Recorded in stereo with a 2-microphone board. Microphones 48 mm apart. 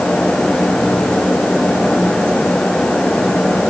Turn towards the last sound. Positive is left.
No sound to turn to.